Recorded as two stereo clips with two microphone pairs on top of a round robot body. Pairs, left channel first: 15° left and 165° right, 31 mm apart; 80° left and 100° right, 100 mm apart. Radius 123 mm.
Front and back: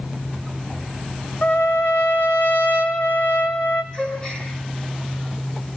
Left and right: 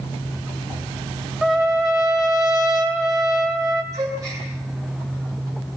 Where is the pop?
I don't hear a pop.